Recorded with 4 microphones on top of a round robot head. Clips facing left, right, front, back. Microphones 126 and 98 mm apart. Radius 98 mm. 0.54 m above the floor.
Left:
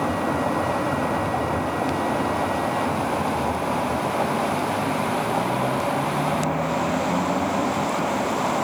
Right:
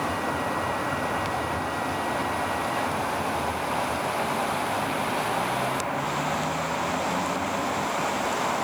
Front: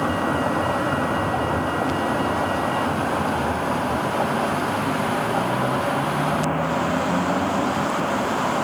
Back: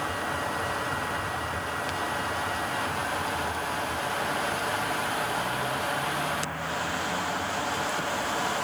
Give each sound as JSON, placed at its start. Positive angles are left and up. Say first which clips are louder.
{"t": 0.0, "sound": "a vehicle", "louder": "left 5 dB, front 9 dB", "azimuth_deg": 30}